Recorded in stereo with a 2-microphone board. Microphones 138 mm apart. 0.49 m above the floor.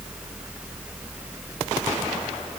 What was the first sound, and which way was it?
Only background noise.